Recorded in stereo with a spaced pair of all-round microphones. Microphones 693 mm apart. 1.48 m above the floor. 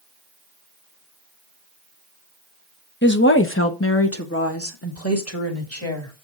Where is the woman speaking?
15° left (ahead or behind), 0.9 m; by 6.1 s 20° left (ahead or behind), 2.5 m.